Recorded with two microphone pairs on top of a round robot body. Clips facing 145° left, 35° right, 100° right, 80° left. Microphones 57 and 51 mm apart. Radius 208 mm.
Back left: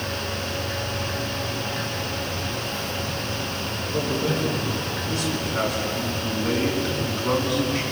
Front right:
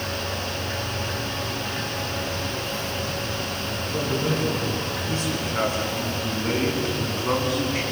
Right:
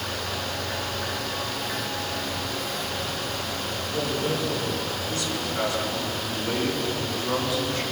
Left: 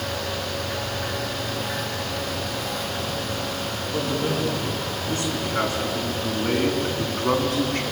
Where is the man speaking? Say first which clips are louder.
Back left 1 dB, left 2 dB; 20° left, 7 m; by 7.8 s 40° left, 6 m.